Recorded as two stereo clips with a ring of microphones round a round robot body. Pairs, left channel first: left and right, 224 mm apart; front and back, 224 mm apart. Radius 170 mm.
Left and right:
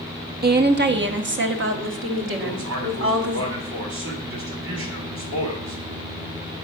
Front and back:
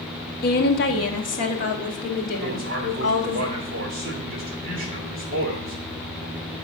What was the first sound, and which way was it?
A woman speaking, 45° right.